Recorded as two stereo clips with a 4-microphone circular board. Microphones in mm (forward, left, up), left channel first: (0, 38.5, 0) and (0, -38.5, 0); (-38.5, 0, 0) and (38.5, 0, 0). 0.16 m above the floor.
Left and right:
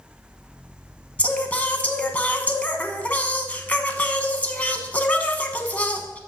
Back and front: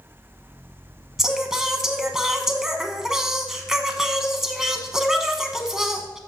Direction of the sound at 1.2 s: 70° left.